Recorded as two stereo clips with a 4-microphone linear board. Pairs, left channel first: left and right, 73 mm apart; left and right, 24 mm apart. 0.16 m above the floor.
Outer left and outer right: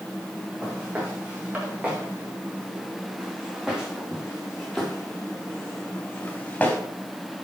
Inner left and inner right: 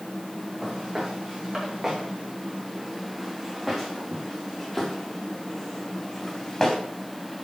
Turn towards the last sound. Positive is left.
turn(degrees=20)  # may be behind; listen again after turning